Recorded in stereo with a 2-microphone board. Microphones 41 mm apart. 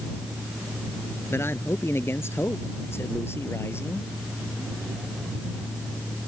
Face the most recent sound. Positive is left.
turn(degrees=80)